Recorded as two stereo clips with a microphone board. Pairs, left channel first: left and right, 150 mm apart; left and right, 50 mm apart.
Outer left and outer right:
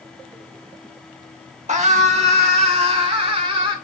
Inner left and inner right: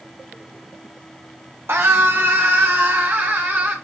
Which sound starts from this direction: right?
A scream, at 1.7 s.